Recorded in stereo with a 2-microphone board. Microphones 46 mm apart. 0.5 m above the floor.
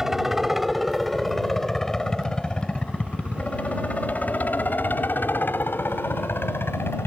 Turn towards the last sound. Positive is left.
turn(degrees=55)  # may be behind; listen again after turning